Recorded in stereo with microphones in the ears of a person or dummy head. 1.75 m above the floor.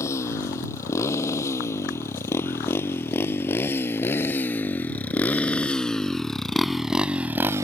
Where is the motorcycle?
20° left (ahead or behind); by 7.6 s 15° right (ahead or behind).